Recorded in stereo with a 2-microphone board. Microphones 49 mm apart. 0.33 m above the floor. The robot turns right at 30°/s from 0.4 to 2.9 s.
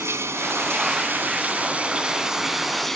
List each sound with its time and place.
0.0 s running water: 70° right, 3 m; by 3.0 s 5° left, 3 m